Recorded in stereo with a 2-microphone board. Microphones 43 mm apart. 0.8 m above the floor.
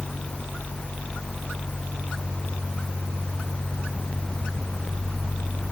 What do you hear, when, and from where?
Only background noise.